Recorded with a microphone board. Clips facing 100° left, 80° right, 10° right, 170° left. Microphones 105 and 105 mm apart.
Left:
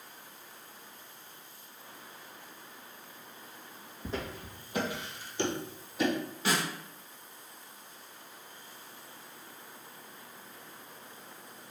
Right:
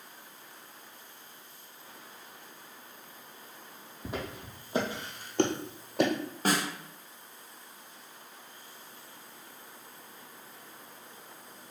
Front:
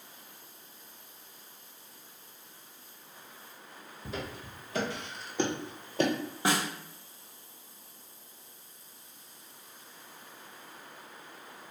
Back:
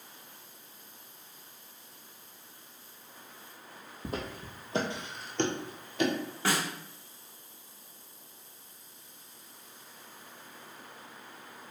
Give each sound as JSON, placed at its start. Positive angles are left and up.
{"t": 4.0, "sound": "footsteps", "azimuth_deg": -155, "distance_m": 1.3}
{"t": 6.5, "sound": "a snare drum", "azimuth_deg": -80, "distance_m": 0.6}